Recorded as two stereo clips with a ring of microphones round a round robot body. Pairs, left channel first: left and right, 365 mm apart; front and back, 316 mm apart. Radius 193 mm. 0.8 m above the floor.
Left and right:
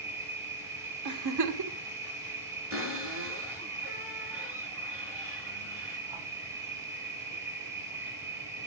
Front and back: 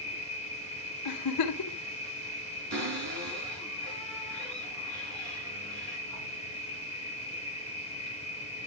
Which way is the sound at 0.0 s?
125° right.